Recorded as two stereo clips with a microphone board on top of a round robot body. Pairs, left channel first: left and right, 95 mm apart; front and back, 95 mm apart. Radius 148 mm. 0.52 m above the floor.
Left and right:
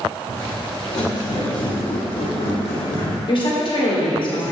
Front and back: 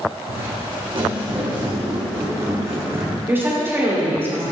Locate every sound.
0.3 s footsteps: 150° left, 2.5 m; by 3.2 s 115° left, 2.5 m
3.3 s a woman speaking: 115° left, 2 m